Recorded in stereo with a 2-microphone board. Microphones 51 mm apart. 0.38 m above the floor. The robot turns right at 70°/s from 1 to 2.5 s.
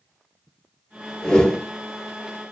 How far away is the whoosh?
About 0.9 m.